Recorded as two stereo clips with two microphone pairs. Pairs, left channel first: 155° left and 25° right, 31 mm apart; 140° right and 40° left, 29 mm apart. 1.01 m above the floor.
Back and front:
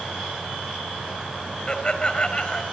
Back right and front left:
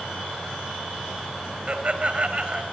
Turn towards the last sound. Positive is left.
turn(degrees=90)